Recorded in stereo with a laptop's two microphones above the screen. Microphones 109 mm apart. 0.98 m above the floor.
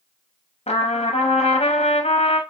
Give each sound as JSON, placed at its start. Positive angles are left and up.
{"t": 0.7, "sound": "a trumpet", "side_deg": 80, "distance_m": 0.6}